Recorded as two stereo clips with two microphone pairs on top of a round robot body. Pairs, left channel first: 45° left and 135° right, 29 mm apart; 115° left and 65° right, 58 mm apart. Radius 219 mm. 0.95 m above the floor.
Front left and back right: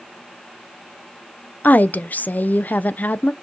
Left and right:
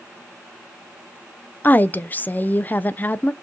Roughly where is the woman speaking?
Ahead left.